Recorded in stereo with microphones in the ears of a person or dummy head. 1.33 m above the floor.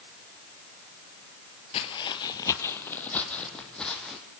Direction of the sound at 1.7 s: 30° left (ahead or behind).